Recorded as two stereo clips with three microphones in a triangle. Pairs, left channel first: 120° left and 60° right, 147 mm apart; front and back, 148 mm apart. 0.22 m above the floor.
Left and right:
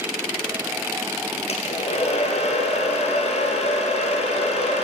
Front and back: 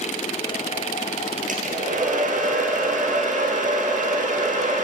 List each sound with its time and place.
1.5 s a hair dryer: 160° left, 1.7 m